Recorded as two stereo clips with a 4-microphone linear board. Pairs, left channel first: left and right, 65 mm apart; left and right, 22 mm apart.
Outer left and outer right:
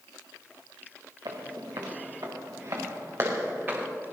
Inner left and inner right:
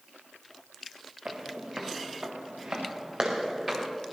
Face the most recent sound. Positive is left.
turn(degrees=-30)  # may be behind; listen again after turning